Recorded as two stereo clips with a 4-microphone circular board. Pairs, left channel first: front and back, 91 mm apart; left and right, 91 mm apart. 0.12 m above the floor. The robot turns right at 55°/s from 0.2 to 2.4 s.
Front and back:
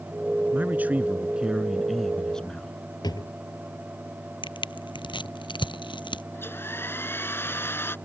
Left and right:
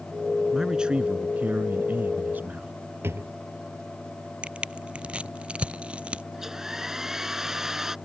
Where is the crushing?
15° right.